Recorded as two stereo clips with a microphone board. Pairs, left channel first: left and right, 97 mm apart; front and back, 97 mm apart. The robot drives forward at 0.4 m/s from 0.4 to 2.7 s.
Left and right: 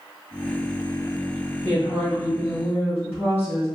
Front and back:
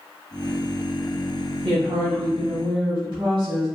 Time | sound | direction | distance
1.6 | a woman speaking | 135° left | 0.6 m